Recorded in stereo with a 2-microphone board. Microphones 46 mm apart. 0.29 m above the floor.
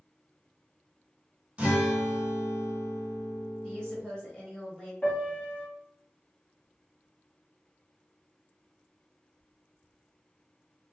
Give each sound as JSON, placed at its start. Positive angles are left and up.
{"t": 1.6, "sound": "a guitar", "side_deg": -25, "distance_m": 1.2}
{"t": 3.6, "sound": "a woman speaking", "side_deg": 20, "distance_m": 1.1}
{"t": 5.0, "sound": "a piano", "side_deg": 35, "distance_m": 1.0}